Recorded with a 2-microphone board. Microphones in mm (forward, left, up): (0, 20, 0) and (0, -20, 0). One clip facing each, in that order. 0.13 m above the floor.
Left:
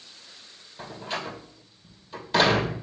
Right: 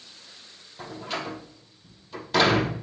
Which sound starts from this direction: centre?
A door slam, at 0.8 s.